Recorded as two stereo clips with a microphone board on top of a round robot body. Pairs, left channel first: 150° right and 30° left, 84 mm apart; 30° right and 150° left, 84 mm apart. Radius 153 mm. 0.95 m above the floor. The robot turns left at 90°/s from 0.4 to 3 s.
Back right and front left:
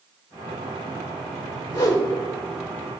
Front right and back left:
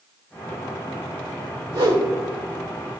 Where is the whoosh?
Straight behind, 3 m; by 2.1 s 145° left, 3 m.